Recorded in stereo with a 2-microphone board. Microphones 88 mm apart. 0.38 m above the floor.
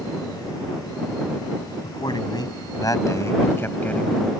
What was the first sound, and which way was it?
A man speaking, 60° left (ahead or behind).